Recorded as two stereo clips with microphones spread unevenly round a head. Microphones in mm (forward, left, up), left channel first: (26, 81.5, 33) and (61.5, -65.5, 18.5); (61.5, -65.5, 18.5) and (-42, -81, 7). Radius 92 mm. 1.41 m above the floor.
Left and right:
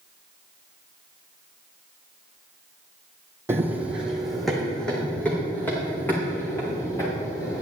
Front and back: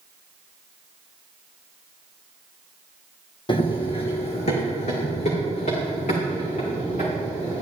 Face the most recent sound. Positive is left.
turn(degrees=35)